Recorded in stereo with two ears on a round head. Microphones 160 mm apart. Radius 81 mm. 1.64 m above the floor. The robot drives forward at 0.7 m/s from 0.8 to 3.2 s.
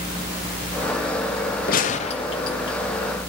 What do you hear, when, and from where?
1.7 s a gunshot: 55° left (ahead or behind), 0.5 m; by 2.8 s 25° left (ahead or behind), 1.1 m